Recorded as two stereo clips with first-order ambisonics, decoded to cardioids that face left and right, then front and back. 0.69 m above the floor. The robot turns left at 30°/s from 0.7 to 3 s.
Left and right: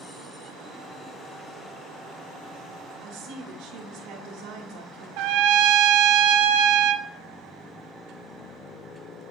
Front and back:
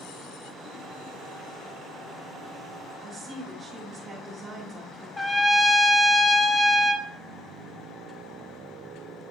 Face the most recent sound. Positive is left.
turn(degrees=-80)